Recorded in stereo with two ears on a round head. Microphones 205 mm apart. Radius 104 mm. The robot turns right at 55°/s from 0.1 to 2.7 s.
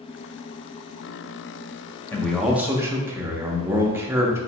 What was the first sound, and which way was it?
A man speaking, 165° left.